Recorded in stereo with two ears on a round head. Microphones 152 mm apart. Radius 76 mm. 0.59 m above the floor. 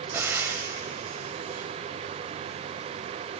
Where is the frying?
15° right (ahead or behind), 0.6 m.